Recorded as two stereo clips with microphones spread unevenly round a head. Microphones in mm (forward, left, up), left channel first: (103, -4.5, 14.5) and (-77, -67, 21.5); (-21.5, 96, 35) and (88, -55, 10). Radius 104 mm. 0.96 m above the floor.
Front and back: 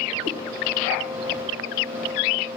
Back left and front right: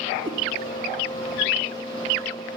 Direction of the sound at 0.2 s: 145° right.